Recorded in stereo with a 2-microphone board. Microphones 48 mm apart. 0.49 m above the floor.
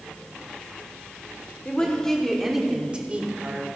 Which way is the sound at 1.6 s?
25° left (ahead or behind).